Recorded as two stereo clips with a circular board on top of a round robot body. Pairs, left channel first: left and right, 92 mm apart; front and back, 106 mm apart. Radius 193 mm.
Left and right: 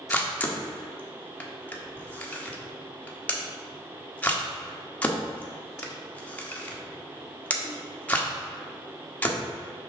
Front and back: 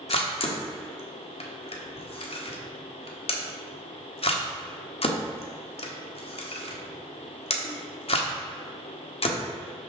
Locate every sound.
0.1 s a camera shutter: 15° left, 1.3 m